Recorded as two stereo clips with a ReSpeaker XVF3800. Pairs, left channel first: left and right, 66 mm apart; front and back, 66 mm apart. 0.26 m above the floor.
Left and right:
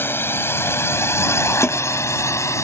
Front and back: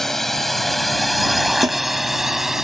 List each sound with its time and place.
0.0 s a drone: 80° left; by 2.6 s 100° left
1.6 s a snare drum: 155° left